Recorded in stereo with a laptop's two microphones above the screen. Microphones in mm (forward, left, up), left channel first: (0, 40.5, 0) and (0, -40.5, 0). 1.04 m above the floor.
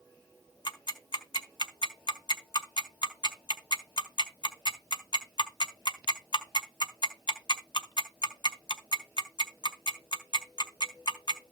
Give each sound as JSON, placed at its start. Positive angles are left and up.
{"t": 0.7, "sound": "ticking", "side_deg": 60, "distance_m": 1.5}